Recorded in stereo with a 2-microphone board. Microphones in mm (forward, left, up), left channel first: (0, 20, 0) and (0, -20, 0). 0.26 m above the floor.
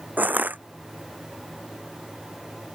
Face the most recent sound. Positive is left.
turn(degrees=-45)  # may be behind; listen again after turning